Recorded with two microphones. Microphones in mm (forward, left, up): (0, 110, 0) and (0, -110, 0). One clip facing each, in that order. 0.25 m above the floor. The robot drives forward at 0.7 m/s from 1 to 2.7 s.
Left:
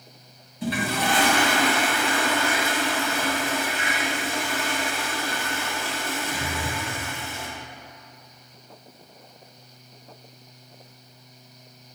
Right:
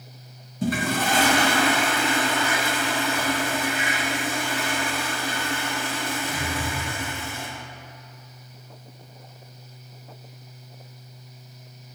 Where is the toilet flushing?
50° right (ahead or behind), 0.6 m; by 7.5 s 15° right (ahead or behind), 1.4 m.